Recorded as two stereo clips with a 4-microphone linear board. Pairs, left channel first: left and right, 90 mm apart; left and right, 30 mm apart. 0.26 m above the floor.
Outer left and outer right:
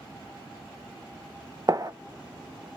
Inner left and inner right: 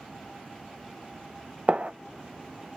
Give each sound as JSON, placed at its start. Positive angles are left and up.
{"t": 1.7, "sound": "a gunshot", "side_deg": -45, "distance_m": 0.6}